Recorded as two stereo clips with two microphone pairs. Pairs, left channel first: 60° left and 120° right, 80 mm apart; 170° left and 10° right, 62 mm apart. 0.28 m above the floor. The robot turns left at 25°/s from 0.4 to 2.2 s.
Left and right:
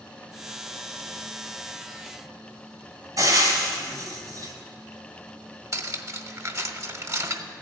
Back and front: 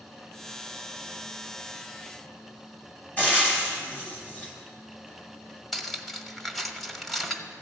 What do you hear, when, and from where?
3.2 s frying: 135° right, 2 m
5.7 s cutlery clinking: 105° right, 0.7 m